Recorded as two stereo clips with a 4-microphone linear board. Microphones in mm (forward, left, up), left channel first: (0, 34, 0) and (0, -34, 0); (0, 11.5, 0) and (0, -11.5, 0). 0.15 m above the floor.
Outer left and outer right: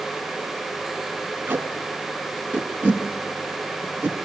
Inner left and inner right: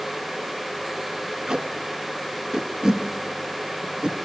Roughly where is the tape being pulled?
Right.